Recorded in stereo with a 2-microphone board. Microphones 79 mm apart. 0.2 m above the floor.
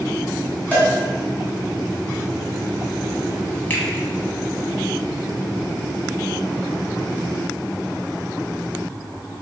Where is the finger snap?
25° left (ahead or behind), 0.9 m.